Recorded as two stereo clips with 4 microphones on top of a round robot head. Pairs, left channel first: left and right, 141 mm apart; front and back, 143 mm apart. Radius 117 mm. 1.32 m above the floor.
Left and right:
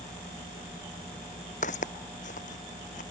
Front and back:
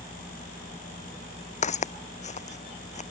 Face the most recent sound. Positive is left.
turn(degrees=35)